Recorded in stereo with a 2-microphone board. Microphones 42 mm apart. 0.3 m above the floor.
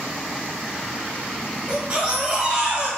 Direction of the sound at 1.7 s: 25° right (ahead or behind).